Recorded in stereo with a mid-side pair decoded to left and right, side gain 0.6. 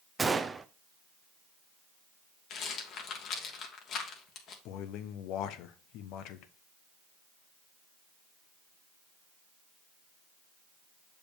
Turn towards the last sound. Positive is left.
turn(degrees=70)